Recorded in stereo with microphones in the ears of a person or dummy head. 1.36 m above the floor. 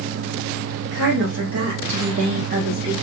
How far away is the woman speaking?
About 1.2 m.